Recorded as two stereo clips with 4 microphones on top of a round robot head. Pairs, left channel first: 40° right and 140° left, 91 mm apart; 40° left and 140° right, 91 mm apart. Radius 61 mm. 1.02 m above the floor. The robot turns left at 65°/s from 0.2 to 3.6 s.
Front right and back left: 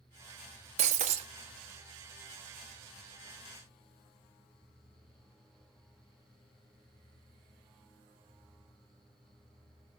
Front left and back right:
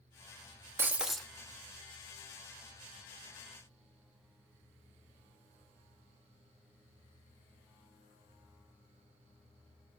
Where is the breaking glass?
150° left, 0.7 m; by 1.3 s 120° left, 0.7 m.